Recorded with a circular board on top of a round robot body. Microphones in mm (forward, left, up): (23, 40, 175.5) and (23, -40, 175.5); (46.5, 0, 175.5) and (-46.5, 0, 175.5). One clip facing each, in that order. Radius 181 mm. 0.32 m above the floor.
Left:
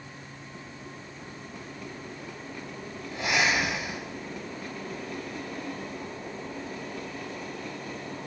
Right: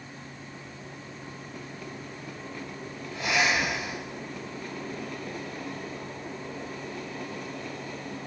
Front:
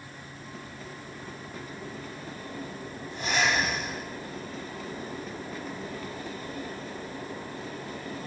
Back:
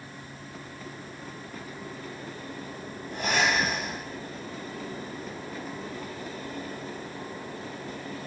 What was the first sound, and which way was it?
Breathing, 155° left.